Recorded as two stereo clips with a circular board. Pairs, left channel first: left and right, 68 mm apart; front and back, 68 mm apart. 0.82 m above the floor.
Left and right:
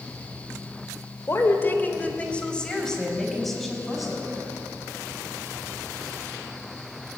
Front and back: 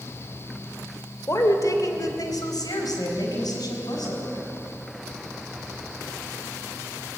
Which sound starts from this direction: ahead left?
A woman speaking, at 1.3 s.